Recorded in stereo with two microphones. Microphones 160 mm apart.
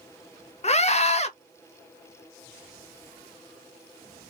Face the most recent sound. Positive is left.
turn(degrees=40)  # may be behind; listen again after turning